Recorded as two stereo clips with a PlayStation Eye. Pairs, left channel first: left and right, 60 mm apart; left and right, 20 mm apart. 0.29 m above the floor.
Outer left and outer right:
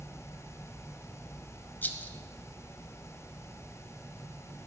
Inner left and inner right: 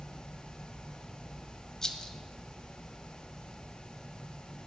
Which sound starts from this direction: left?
A rattle, at 1.8 s.